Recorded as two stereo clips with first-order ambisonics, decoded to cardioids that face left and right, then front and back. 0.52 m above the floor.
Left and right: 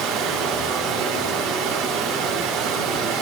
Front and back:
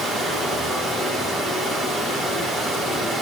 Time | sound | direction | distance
0.0 | running water | 80° right | 3 m